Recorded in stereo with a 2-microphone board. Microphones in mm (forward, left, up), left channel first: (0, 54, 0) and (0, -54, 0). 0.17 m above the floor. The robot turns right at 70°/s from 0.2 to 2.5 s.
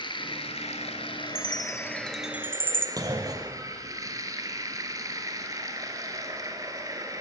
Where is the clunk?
35° right (ahead or behind), 1.8 m.